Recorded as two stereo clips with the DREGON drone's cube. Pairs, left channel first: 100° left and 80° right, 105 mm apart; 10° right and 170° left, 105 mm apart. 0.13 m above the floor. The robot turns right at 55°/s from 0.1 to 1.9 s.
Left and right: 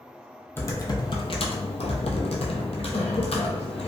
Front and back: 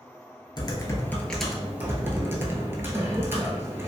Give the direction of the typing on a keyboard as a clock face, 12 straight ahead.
11 o'clock.